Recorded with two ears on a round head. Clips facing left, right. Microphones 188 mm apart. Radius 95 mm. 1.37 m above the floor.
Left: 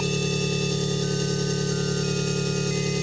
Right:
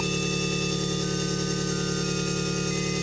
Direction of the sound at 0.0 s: 25° left (ahead or behind).